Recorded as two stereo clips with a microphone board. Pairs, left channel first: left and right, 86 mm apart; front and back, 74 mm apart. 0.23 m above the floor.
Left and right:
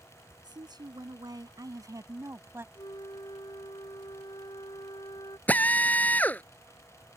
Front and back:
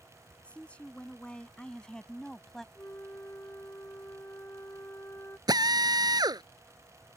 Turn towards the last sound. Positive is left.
turn(degrees=160)